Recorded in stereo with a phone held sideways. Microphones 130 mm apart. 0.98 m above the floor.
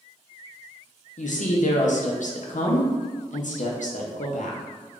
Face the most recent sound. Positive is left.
turn(degrees=75)  # may be behind; listen again after turning